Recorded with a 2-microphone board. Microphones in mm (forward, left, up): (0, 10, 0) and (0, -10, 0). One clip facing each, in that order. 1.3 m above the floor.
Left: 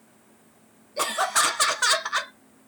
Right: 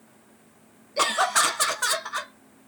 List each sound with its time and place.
1.0 s laughter: 30° right (ahead or behind), 0.6 m; by 2.7 s 45° left (ahead or behind), 0.9 m